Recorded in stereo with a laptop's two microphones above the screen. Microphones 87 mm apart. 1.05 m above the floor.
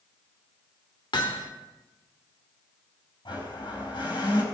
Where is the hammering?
75° left (ahead or behind), 1.5 m.